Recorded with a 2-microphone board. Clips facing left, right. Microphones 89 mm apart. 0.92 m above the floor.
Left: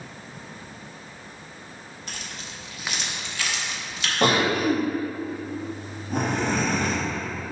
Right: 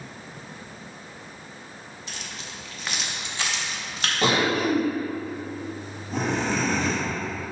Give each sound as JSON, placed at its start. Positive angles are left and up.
{"t": 2.1, "sound": "keys jangling", "side_deg": 55, "distance_m": 1.0}
{"t": 4.2, "sound": "a cough", "side_deg": 55, "distance_m": 1.8}